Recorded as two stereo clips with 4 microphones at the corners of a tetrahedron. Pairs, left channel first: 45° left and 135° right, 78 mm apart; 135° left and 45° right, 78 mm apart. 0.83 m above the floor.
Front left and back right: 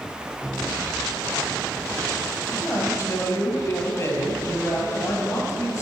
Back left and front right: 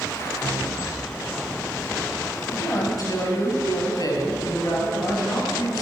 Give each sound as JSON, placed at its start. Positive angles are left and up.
{"t": 2.5, "sound": "a man speaking", "azimuth_deg": 90, "distance_m": 6.5}